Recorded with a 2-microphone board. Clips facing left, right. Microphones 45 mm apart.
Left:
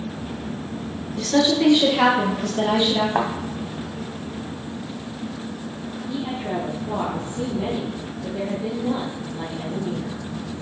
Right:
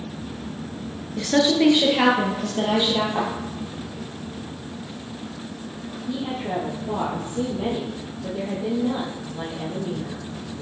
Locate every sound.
1.2 s a woman speaking: 25° right (ahead or behind), 1.3 m; by 3.0 s 20° right (ahead or behind), 2.5 m
3.1 s a thud: 30° left (ahead or behind), 1.8 m
6.1 s a woman speaking: 25° right (ahead or behind), 2.5 m